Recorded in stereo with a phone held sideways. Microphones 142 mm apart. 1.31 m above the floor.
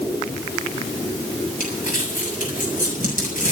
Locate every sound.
1.6 s crumpling: 70° left (ahead or behind), 7.5 m